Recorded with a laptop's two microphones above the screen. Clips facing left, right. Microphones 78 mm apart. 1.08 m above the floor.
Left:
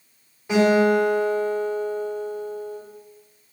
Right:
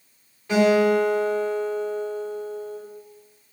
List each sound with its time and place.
0.5 s a guitar: 15° left (ahead or behind), 2 m